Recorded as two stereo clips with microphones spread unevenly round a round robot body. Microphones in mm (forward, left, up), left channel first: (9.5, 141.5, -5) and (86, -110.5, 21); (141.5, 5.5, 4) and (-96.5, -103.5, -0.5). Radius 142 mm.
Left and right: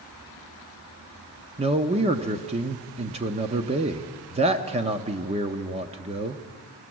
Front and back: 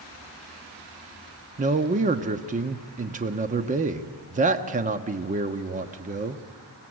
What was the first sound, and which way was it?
A man speaking, 130° right.